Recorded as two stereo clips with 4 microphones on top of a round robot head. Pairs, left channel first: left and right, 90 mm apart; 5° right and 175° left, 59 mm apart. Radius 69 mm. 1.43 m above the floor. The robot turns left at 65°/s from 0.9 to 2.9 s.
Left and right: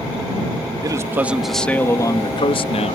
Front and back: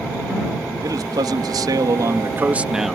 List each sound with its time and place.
0.8 s a man speaking: 140° right; by 3.0 s 90° left